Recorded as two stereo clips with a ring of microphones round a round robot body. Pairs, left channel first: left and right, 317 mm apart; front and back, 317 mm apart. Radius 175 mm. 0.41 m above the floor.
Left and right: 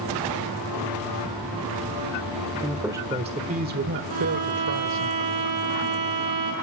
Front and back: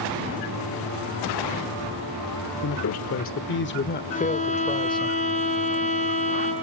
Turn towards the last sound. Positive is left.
turn(degrees=-70)